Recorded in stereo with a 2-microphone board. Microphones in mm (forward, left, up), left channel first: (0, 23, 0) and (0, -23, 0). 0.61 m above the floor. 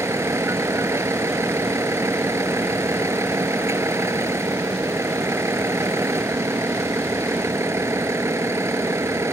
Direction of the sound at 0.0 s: 85° right.